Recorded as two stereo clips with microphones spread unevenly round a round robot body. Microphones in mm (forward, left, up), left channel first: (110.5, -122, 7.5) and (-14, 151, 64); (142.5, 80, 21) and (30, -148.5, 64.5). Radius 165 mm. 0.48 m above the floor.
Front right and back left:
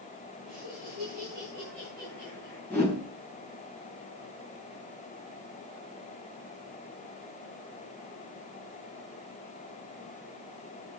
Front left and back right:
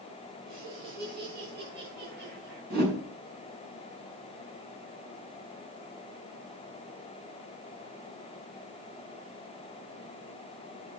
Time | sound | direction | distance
0.5 | laughter | 155° right | 7 m
2.7 | a whoosh | 145° right | 5 m